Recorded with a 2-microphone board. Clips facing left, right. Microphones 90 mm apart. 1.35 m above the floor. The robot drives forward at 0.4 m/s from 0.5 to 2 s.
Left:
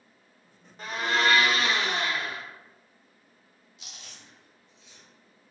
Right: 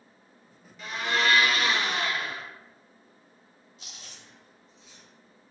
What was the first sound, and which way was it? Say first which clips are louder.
A blender: left 2 dB; 40° left (ahead or behind).